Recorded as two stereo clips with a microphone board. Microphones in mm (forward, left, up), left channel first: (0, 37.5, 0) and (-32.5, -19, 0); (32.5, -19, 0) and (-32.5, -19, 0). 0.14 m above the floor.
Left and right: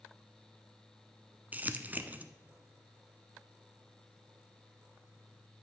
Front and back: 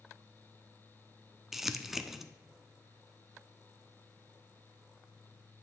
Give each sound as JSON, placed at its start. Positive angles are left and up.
{"t": 1.5, "sound": "crumpling", "azimuth_deg": -100, "distance_m": 0.5}